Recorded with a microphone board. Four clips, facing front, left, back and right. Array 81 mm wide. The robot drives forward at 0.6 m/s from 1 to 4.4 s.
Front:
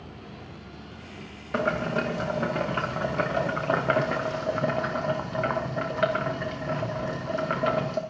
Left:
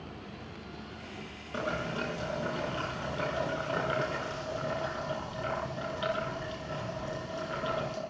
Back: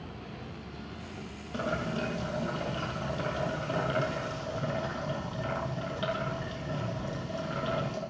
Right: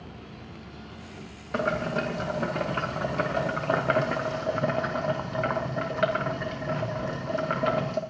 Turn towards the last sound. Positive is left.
turn(degrees=-45)